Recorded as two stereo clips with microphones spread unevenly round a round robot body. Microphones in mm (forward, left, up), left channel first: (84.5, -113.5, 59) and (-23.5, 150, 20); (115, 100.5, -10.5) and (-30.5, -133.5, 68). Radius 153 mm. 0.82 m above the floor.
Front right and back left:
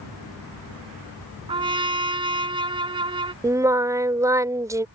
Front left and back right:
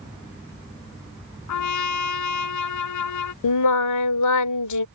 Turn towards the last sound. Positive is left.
turn(degrees=30)